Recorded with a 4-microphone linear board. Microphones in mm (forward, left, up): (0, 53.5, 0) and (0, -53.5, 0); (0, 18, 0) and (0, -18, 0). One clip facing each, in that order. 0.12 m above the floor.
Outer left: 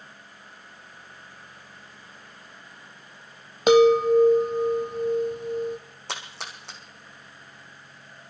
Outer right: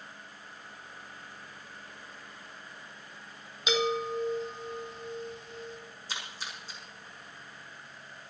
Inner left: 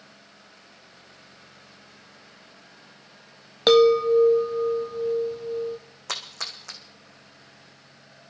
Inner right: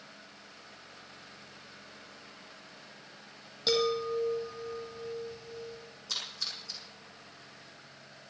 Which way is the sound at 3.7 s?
55° left (ahead or behind).